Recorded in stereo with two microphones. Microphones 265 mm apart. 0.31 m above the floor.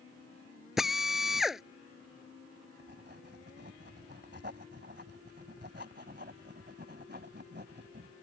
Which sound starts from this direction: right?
Writing, at 2.8 s.